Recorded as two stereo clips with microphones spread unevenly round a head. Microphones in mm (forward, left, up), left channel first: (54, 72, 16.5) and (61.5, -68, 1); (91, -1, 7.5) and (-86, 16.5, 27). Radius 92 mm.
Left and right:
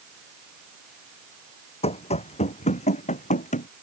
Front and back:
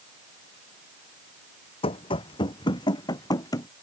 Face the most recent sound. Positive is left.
turn(degrees=65)